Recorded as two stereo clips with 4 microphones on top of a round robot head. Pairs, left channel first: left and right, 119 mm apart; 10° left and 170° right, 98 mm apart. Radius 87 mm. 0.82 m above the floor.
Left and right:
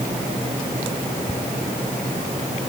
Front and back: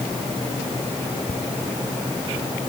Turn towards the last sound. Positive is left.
No sound to turn to.